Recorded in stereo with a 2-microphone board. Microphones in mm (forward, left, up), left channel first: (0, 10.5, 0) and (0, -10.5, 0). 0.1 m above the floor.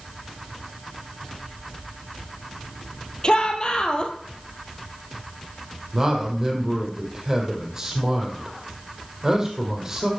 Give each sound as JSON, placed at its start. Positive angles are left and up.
{"t": 3.2, "sound": "a shout", "side_deg": 45, "distance_m": 2.5}
{"t": 5.9, "sound": "a man speaking", "side_deg": -20, "distance_m": 4.0}